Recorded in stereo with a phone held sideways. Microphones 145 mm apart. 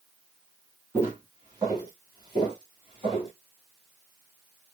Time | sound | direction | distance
0.9 | footsteps | 20° right (ahead or behind) | 1.9 m